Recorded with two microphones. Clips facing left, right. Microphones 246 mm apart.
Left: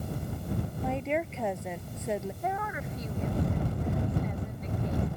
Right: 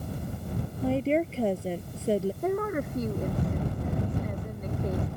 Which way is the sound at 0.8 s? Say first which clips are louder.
Right 8 dB; 35° right (ahead or behind).